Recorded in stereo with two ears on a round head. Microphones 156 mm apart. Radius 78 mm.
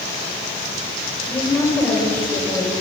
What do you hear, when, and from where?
1.3 s a woman speaking: 5° left (ahead or behind), 3.5 m; by 2.7 s 15° left (ahead or behind), 4 m